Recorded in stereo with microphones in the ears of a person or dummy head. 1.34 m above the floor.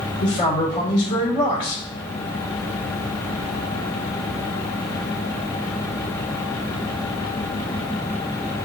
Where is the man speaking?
50° left (ahead or behind), 1.5 m.